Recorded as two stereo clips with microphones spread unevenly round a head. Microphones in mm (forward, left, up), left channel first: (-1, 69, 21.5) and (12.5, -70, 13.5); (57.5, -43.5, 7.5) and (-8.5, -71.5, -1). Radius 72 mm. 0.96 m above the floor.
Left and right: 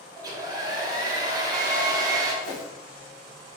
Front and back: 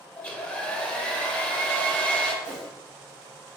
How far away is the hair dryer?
About 0.9 m.